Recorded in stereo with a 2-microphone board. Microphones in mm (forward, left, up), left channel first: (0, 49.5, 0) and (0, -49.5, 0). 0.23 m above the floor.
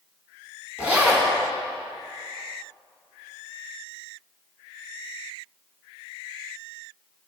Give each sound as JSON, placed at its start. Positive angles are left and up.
{"t": 0.8, "sound": "a zipper", "side_deg": -15, "distance_m": 1.5}